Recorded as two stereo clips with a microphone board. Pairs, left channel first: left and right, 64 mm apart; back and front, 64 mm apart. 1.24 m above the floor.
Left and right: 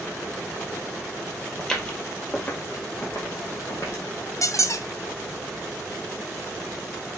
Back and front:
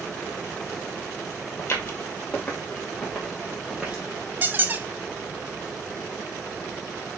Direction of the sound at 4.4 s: 60° left.